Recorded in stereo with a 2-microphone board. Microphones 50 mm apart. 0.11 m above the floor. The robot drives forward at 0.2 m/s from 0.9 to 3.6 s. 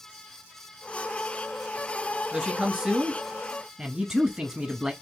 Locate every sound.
2.3 s a man speaking: 10° right (ahead or behind), 1.2 m; by 4.9 s 15° right (ahead or behind), 1.1 m